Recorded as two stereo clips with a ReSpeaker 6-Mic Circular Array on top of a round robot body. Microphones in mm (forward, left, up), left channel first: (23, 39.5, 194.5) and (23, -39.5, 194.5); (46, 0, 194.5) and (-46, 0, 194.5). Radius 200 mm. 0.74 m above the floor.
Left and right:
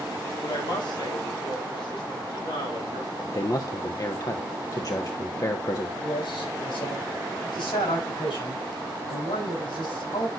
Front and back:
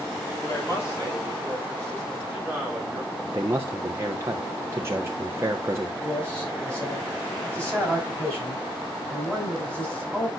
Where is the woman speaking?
60° left, 4 m; by 3.1 s 85° left, 7 m.